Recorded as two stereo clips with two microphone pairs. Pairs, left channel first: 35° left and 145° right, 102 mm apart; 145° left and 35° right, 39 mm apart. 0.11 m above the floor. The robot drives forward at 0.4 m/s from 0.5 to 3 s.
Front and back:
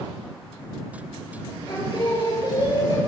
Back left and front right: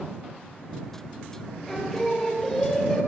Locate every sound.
1.7 s singing: 60° left, 2.5 m; by 3.0 s 75° left, 2.5 m